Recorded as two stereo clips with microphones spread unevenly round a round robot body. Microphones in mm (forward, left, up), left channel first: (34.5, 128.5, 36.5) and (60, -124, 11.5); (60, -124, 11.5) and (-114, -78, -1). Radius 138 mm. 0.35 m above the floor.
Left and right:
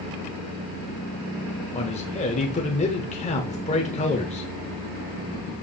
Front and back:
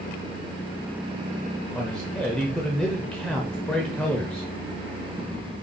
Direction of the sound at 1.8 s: 70° left.